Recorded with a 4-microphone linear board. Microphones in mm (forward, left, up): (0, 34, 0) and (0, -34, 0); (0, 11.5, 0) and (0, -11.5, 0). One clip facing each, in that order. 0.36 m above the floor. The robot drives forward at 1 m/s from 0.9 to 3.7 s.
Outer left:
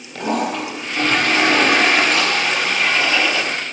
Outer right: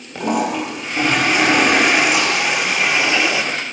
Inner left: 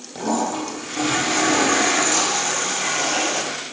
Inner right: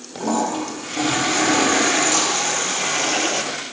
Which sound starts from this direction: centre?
A toilet flushing, at 0.1 s.